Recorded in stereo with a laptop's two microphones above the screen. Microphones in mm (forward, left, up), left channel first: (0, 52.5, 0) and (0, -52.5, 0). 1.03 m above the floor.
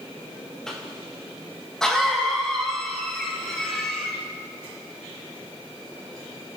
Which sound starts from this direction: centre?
A cough, at 0.7 s.